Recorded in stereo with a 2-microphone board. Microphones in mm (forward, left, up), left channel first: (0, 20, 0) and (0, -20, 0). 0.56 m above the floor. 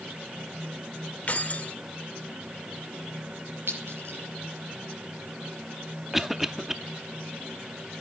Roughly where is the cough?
Centre.